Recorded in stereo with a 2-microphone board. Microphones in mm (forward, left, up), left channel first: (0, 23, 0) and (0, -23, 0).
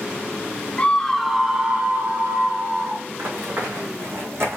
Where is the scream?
25° left (ahead or behind), 0.9 m; by 3.0 s 45° right (ahead or behind), 2.5 m.